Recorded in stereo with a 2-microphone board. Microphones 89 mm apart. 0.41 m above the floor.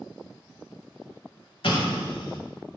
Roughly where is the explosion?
Left.